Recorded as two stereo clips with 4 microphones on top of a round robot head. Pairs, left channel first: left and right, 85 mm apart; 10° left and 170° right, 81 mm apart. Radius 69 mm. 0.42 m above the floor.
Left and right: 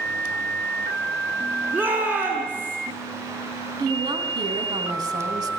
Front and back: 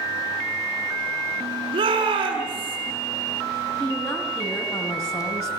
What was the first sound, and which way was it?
A shout, 160° right.